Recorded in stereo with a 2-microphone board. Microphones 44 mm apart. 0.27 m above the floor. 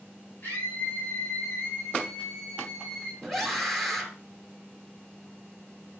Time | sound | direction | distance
0.4 | a scream | 40° left (ahead or behind) | 6 m
3.2 | a scream | 5° left (ahead or behind) | 5 m